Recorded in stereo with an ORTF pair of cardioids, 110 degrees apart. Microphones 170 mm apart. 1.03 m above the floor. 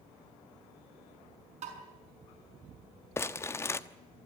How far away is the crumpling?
About 1.0 m.